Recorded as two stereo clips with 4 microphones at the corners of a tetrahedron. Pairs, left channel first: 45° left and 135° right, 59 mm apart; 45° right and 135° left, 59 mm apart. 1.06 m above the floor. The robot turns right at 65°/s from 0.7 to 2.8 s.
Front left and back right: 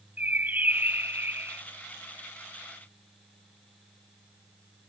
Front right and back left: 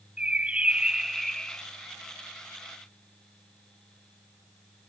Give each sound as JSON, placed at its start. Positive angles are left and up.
{"t": 0.2, "sound": "a bird", "azimuth_deg": -170}